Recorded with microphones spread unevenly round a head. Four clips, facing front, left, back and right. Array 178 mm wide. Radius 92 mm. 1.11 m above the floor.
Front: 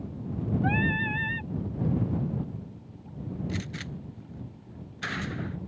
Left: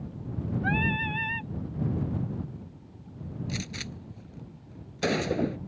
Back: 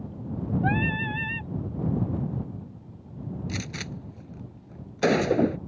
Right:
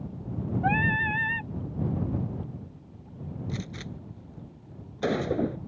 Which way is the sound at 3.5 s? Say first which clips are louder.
Even, back 1 dB; 170° right.